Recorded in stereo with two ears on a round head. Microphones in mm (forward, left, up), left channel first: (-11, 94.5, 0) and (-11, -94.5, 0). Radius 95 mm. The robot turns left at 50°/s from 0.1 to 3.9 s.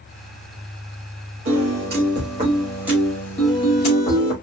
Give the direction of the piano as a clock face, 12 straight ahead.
3 o'clock.